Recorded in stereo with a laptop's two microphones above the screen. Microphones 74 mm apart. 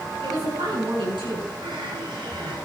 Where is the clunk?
I don't hear a clunk.